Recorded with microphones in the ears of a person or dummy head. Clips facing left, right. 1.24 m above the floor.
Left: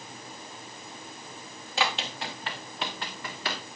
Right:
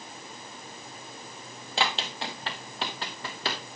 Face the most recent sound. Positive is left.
turn(degrees=-30)  # may be behind; listen again after turning